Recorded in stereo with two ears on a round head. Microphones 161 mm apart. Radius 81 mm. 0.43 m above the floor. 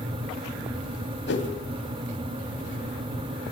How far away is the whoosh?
About 2.5 m.